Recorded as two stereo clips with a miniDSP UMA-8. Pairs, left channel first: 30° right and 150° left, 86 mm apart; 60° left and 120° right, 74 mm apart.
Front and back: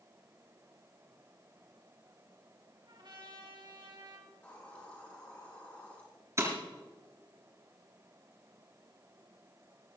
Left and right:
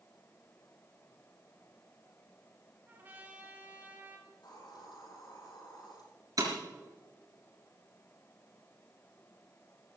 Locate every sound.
2.9 s a trumpet: 175° left, 3.5 m
4.3 s a hiss: 40° left, 8 m
6.4 s breaking glass: 155° right, 4 m